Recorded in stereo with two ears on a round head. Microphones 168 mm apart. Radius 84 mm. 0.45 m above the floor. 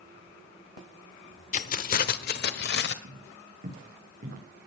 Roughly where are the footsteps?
Right.